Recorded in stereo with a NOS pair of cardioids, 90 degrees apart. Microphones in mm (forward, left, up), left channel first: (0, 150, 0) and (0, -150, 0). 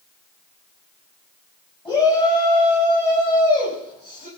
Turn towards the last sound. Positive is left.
turn(degrees=30)